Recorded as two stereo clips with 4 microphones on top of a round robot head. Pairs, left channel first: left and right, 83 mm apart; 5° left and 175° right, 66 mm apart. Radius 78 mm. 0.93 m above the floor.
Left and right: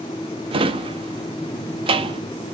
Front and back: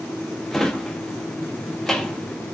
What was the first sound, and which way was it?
A drawer, 80° right.